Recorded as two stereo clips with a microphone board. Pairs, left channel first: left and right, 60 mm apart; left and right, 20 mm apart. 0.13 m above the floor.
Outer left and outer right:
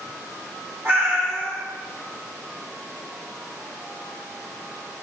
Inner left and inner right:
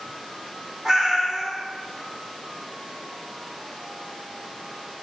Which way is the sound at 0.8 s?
40° right (ahead or behind).